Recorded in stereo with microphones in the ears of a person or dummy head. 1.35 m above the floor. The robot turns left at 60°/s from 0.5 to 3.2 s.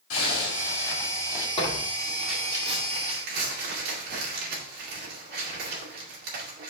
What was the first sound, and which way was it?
A zipper, 80° left.